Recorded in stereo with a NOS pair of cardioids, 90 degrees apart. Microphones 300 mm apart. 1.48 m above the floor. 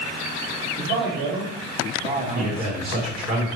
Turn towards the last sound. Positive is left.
turn(degrees=-30)